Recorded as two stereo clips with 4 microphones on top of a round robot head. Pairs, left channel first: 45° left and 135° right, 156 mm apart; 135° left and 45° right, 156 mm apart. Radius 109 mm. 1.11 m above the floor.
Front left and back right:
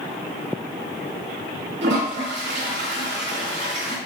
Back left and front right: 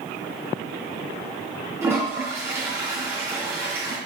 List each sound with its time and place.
1.8 s a toilet flushing: 120° right, 3 m